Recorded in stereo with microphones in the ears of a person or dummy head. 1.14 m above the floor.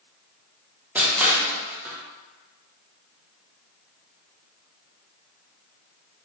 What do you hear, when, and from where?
0.9 s crushing: 5° right (ahead or behind), 0.6 m